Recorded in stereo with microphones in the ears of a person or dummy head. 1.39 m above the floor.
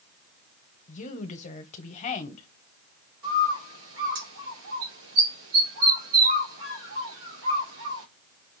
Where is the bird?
80° right, 3 m.